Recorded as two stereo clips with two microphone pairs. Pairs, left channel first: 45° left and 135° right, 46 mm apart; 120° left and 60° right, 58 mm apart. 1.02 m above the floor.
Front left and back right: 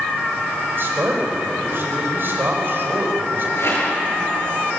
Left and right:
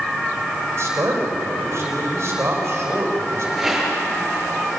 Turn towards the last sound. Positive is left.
turn(degrees=20)